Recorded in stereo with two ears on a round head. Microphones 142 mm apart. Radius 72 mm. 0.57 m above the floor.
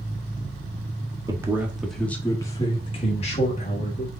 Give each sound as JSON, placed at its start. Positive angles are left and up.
{"t": 1.3, "sound": "a man speaking", "side_deg": -20, "distance_m": 0.8}